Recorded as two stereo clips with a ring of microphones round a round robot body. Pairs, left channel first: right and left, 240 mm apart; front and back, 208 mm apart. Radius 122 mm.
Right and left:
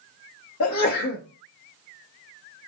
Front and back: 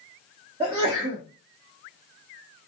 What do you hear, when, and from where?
0.6 s a sneeze: 110° right, 1.1 m